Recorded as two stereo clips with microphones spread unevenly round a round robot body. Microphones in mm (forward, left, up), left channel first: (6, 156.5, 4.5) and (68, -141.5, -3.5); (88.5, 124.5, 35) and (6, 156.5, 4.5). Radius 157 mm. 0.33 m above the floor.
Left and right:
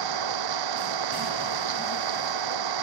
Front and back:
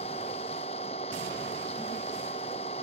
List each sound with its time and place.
0.0 s an engine running: 75° right